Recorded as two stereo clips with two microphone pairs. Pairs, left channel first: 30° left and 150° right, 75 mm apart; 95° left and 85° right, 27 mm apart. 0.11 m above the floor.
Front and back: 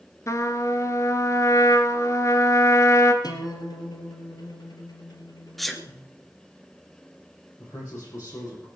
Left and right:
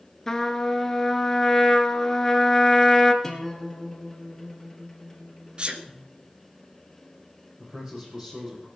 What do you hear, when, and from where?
0.3 s a trumpet: 35° left, 1.3 m
3.2 s a guitar: 20° left, 2.5 m
5.6 s a sneeze: 60° right, 1.6 m
7.6 s a man speaking: 20° right, 5 m